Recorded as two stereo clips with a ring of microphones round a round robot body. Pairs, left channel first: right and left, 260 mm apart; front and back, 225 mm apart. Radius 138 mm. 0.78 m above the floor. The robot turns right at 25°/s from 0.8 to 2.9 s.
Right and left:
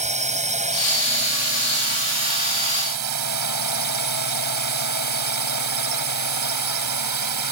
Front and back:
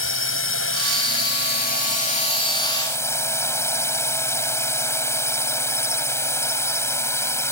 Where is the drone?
25° left; by 7.5 s 80° left.